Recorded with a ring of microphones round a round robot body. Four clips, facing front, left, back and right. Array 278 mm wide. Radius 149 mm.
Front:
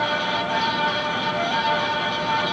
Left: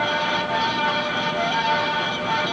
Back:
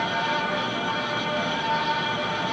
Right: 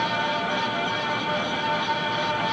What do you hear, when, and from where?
Only background noise.